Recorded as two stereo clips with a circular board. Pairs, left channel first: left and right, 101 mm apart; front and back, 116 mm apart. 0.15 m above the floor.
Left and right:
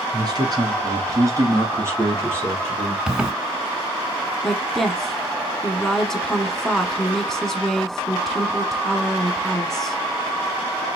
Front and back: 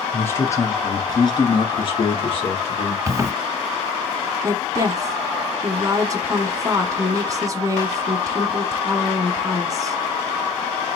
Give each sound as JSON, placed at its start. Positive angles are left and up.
{"t": 0.1, "sound": "a man speaking", "azimuth_deg": -65, "distance_m": 1.9}
{"t": 3.1, "sound": "a zipper", "azimuth_deg": -165, "distance_m": 0.7}
{"t": 4.4, "sound": "a woman speaking", "azimuth_deg": 175, "distance_m": 1.2}